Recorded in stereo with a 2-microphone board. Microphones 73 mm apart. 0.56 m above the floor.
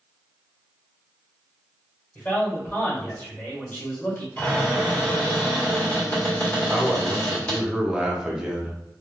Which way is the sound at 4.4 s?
25° left (ahead or behind).